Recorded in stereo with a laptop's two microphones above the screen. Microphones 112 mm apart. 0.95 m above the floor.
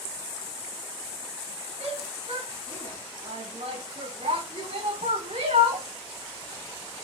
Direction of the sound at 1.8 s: 65° right (ahead or behind).